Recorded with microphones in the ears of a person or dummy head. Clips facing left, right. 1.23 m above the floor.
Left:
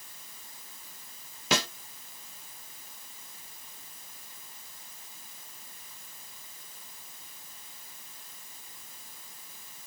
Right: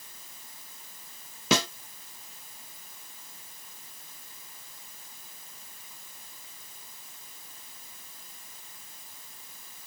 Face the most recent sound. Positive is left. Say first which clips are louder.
# right 4 dB
turn(degrees=-70)  # may be behind; listen again after turning